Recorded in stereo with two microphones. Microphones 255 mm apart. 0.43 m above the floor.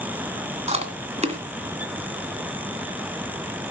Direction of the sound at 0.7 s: 25° right (ahead or behind).